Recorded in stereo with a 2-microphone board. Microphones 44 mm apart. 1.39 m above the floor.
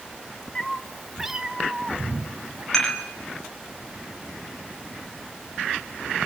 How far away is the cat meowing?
About 1.3 m.